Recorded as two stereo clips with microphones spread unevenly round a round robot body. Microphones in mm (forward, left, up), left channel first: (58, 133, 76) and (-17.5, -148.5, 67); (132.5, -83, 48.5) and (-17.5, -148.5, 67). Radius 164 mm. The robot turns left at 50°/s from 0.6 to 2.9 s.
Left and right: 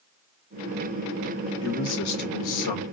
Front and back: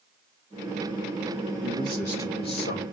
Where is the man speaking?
125° left, 1.2 m; by 2.8 s 65° left, 1.2 m.